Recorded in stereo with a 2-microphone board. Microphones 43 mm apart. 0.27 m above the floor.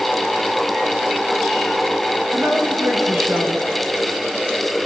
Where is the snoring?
I don't hear snoring.